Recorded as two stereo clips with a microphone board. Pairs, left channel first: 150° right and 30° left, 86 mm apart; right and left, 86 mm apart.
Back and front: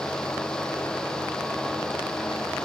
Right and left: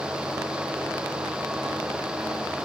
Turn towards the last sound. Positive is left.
No sound to turn to.